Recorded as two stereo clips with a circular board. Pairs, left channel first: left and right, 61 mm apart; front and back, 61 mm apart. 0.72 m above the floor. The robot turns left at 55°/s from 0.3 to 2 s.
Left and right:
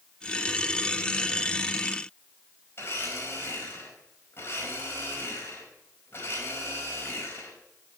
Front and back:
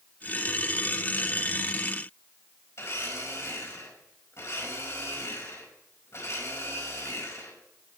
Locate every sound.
2.8 s a blender: 40° left, 5 m